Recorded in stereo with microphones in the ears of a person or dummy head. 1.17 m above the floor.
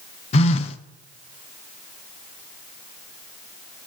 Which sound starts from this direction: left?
A phone buzzing, at 0.3 s.